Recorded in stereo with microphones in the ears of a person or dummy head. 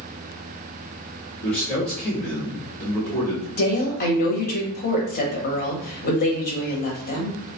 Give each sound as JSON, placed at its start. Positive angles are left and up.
{"t": 1.4, "sound": "a man speaking", "side_deg": 5, "distance_m": 1.4}
{"t": 3.6, "sound": "a woman speaking", "side_deg": 50, "distance_m": 0.7}